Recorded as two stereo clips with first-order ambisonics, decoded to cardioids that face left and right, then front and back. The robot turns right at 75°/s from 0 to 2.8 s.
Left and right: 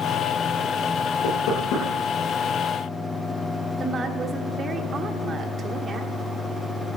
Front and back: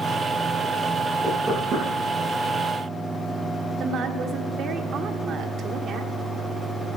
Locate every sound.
1.2 s knocking: 90° left, 9 m; by 1.9 s 135° left, 9 m
3.8 s a woman speaking: 145° right, 1.3 m